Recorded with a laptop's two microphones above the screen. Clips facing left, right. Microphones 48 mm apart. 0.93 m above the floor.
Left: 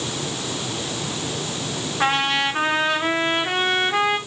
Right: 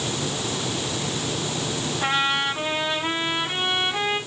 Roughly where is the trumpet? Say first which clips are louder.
Left 3 dB; left.